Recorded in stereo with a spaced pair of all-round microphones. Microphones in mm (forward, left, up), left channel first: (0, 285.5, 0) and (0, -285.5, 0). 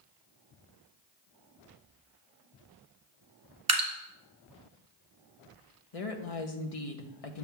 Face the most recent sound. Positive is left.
turn(degrees=75)  # may be behind; listen again after turning